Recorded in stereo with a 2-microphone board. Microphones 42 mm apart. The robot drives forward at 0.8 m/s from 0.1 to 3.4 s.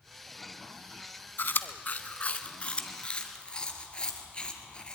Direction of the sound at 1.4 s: 55° left (ahead or behind).